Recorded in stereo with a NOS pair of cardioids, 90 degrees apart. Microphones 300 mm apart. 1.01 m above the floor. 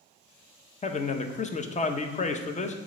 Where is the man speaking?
25° left, 0.5 m.